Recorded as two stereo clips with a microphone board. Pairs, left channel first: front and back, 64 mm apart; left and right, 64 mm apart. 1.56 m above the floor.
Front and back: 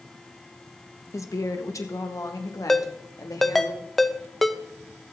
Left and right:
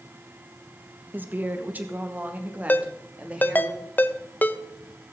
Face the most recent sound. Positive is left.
turn(degrees=80)